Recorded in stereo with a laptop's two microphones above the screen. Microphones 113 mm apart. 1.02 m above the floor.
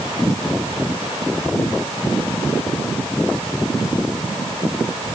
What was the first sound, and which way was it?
Only background noise.